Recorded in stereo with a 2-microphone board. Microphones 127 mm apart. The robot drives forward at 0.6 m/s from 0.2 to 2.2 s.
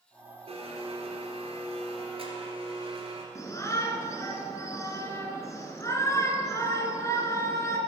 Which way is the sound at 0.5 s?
50° right (ahead or behind).